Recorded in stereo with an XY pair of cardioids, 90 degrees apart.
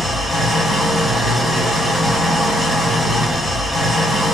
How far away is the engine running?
About 1.9 m.